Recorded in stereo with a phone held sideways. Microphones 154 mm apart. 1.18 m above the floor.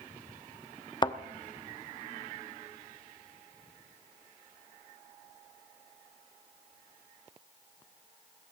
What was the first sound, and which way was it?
A thud, 30° left (ahead or behind).